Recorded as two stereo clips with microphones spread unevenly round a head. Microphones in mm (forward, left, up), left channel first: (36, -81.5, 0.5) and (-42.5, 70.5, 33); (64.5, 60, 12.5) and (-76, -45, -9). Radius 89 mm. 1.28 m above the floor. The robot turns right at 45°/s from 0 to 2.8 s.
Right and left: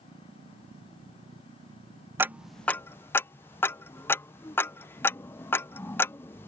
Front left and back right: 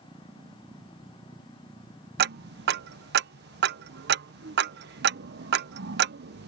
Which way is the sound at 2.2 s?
160° right.